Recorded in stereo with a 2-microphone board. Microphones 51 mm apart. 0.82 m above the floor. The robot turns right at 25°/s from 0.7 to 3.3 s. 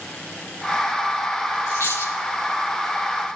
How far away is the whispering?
No whispering in this recording.